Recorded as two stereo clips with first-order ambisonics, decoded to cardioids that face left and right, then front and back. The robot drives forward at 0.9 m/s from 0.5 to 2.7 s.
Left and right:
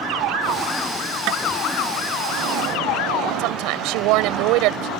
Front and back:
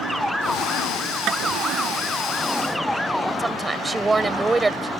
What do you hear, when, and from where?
1.3 s tapping: 130° right
3.4 s a woman speaking: 105° right